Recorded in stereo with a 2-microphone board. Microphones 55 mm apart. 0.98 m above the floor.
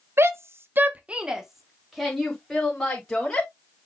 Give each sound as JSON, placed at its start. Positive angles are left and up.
{"t": 0.2, "sound": "a shout", "side_deg": -50, "distance_m": 1.1}